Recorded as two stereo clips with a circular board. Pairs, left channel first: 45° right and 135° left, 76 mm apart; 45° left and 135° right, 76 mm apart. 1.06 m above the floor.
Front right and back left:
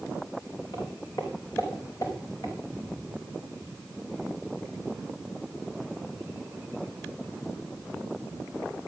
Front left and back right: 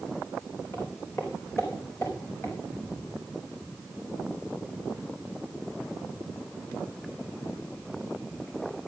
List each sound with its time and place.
0.7 s footsteps: straight ahead, 4 m; by 2.5 s 5° right, 6 m